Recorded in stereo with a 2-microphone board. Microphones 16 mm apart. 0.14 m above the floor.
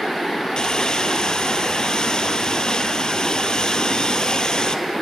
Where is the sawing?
50° left (ahead or behind), 1.3 m.